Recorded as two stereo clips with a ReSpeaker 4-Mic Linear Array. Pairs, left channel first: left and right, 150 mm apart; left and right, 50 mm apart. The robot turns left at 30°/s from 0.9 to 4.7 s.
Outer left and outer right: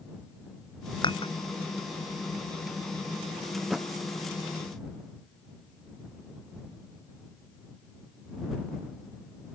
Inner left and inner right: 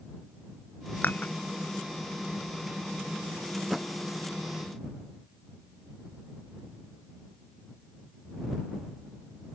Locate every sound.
1.0 s dishes clattering: 30° left (ahead or behind); by 1.3 s 40° left (ahead or behind)
3.6 s a thud: 10° right (ahead or behind); by 3.9 s centre (ahead or behind)